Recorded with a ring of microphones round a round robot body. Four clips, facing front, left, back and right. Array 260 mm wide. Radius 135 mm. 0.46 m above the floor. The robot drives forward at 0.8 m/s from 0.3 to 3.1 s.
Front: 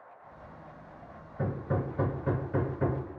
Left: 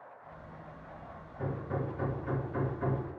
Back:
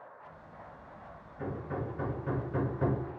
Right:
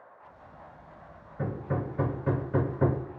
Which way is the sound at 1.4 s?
35° right.